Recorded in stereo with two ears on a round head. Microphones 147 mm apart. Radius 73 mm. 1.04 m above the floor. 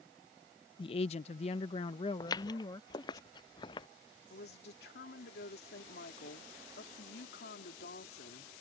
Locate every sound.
0.8 s a woman speaking: 30° left (ahead or behind); by 3.2 s 25° left (ahead or behind)
2.2 s footsteps: 25° left (ahead or behind); by 3.9 s 30° left (ahead or behind)
4.3 s a woman speaking: 70° left (ahead or behind)